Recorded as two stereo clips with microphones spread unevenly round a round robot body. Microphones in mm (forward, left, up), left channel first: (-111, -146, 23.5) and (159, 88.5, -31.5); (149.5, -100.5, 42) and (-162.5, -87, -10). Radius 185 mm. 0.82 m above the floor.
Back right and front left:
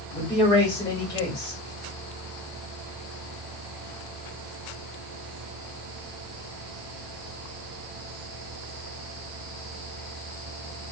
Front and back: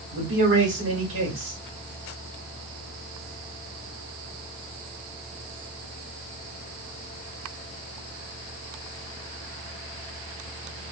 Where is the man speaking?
135° left, 1.9 m.